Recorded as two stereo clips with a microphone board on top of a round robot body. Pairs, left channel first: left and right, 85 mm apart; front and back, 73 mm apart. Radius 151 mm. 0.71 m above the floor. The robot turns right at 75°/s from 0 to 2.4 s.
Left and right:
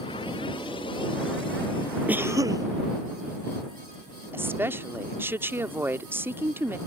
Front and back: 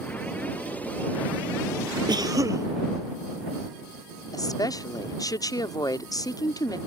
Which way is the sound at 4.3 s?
25° right.